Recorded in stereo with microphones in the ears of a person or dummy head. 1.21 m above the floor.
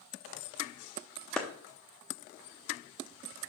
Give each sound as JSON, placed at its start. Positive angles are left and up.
{"t": 1.4, "sound": "a clap", "side_deg": 5, "distance_m": 0.6}